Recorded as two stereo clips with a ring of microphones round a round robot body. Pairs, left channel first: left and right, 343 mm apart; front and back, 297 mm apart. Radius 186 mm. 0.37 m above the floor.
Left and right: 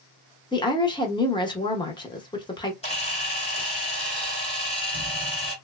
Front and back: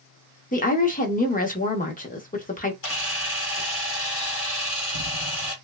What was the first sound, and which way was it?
A woman speaking, 25° left.